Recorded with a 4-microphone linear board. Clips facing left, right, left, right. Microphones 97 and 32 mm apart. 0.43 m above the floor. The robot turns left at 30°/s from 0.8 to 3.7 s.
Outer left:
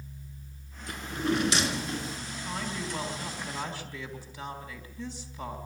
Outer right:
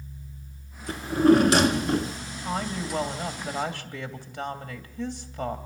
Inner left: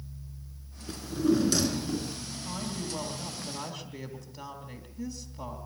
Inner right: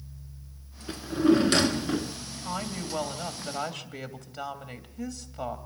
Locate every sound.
0.9 s a drawer: 30° right, 1.2 m; by 2.2 s 70° right, 1.2 m
2.5 s a woman speaking: 55° right, 2.5 m; by 5.6 s 90° right, 2.5 m